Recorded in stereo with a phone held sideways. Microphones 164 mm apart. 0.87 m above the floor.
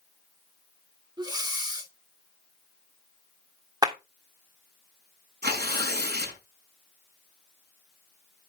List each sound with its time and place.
1.2 s breathing: 25° right (ahead or behind), 1.7 m
3.8 s a clap: 25° right (ahead or behind), 1.3 m
5.4 s tearing paper: 85° right, 5.5 m